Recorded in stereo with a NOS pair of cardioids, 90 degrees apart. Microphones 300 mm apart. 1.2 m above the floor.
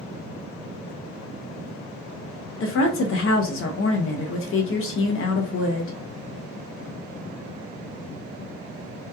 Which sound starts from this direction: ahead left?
A woman speaking, at 2.6 s.